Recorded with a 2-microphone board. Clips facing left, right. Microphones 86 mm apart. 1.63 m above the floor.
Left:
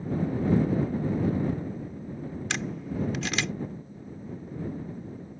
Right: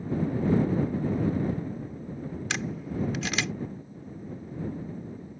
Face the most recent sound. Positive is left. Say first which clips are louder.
# even
turn(degrees=0)  # may be behind; listen again after turning